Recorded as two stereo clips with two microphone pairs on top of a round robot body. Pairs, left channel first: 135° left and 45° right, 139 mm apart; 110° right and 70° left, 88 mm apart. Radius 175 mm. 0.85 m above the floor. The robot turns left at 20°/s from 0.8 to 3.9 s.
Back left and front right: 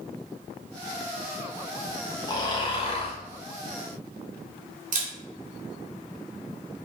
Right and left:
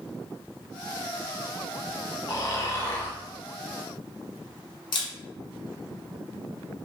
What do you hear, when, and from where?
2.3 s snoring: 160° right, 0.7 m; by 3.2 s straight behind, 0.7 m
4.9 s a camera shutter: 75° right, 0.6 m